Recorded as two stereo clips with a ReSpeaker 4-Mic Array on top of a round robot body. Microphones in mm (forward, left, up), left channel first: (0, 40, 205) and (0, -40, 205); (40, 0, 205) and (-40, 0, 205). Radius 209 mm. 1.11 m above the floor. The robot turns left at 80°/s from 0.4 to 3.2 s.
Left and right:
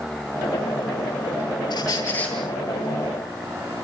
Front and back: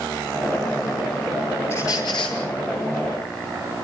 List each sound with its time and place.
1.7 s a squeak: 60° left, 9 m; by 2.4 s 5° left, 9 m